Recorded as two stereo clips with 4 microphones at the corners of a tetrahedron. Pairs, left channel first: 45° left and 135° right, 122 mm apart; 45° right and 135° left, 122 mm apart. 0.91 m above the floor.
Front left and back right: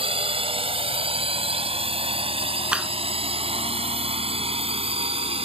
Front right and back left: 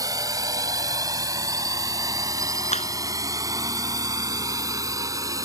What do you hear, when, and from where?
0.0 s a drone: 165° right
2.7 s a clap: 55° right